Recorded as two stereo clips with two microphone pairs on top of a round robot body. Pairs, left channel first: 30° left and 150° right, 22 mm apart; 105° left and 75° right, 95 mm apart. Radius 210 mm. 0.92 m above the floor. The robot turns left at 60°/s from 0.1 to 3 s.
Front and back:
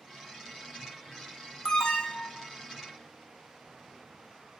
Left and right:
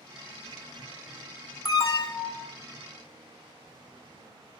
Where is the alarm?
70° left, 1.8 m; by 2.5 s 20° left, 1.8 m.